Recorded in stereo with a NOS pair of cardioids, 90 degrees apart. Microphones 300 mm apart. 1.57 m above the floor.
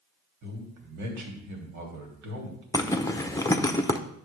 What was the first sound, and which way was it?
A man speaking, 70° right.